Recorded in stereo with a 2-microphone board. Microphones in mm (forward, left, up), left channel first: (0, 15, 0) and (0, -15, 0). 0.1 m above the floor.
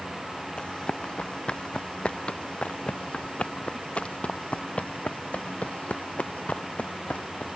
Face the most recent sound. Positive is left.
turn(degrees=55)  # may be behind; listen again after turning